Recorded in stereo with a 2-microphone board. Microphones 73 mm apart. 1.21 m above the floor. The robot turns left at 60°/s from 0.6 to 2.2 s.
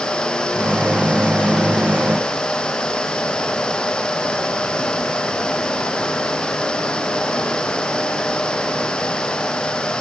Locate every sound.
Only background noise.